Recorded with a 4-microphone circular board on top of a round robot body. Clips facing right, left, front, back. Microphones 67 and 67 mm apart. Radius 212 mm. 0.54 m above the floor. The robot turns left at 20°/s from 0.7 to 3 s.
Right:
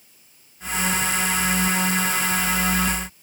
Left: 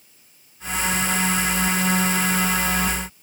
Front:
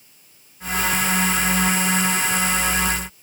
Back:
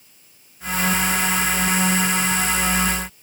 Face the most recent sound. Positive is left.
No sound to turn to.